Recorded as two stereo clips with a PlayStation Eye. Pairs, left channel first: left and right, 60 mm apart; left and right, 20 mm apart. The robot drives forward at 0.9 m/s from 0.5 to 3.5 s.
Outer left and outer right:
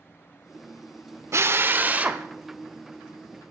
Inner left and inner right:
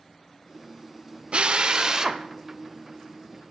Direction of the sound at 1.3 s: 55° right (ahead or behind).